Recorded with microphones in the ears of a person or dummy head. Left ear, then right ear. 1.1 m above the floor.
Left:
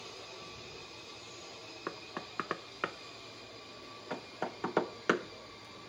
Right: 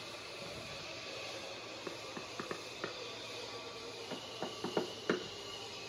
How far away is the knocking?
About 0.8 m.